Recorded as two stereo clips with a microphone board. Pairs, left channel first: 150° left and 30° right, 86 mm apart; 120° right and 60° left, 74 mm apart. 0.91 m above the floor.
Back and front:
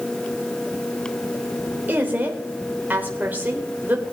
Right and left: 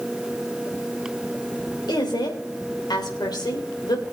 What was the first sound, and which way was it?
A woman speaking, 100° right.